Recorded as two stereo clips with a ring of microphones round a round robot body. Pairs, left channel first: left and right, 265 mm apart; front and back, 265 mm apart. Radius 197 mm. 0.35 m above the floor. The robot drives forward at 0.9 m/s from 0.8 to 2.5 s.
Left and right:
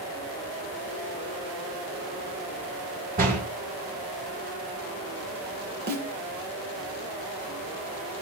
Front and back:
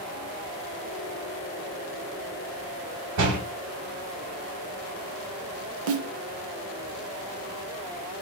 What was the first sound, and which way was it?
A door slam, 155° right.